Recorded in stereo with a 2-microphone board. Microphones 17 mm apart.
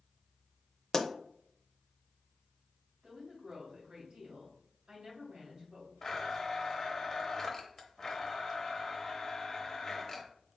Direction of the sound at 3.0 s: 50° right (ahead or behind).